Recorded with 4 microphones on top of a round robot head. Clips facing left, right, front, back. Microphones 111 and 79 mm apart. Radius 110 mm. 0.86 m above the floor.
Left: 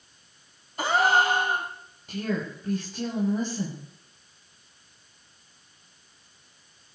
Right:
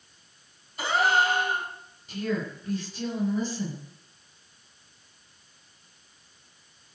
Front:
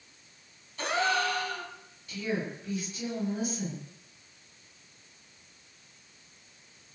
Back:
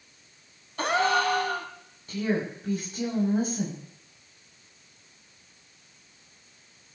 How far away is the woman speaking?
About 7.5 m.